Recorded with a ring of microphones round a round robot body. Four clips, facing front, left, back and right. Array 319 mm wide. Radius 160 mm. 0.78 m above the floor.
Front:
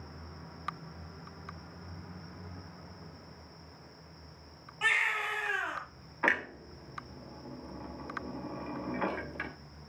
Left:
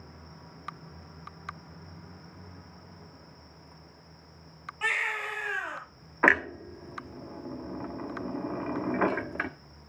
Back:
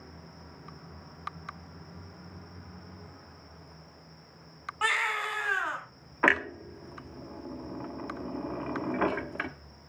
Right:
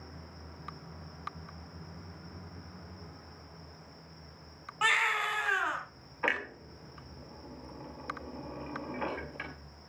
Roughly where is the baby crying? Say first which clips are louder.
Right 3 dB, back 2 dB; behind right.